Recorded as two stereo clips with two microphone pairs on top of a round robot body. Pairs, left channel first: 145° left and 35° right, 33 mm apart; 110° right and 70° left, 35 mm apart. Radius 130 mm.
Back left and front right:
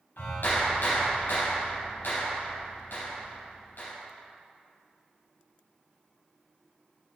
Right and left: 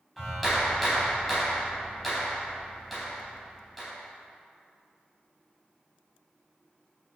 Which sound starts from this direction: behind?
A clap, at 0.2 s.